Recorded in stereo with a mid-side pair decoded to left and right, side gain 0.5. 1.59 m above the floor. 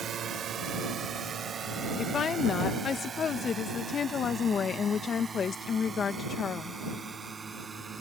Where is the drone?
55° right; by 8.0 s 30° right.